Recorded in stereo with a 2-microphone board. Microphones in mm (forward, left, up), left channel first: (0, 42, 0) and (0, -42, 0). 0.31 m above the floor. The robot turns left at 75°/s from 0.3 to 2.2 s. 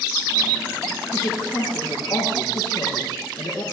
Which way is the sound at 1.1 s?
130° left.